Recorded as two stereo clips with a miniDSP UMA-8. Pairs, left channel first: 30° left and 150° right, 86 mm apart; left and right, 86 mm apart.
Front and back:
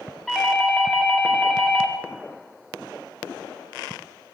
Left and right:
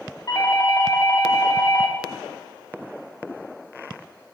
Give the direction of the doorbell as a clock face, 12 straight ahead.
8 o'clock.